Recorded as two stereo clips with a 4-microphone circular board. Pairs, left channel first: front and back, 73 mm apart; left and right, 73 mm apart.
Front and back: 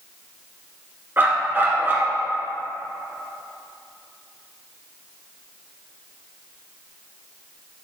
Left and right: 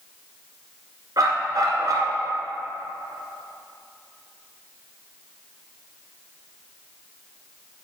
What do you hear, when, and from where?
1.2 s a dog barking: 120° right, 1.4 m